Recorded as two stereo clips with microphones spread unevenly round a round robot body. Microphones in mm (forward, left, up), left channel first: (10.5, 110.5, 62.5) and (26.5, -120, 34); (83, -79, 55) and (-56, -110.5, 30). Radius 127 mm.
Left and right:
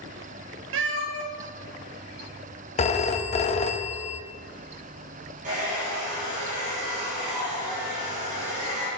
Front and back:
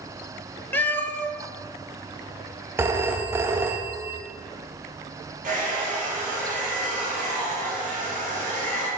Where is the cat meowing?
55° right, 0.9 m.